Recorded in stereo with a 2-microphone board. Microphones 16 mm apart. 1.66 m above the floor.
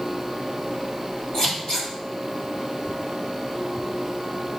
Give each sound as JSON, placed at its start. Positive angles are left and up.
{"t": 1.3, "sound": "scissors", "side_deg": 75, "distance_m": 1.9}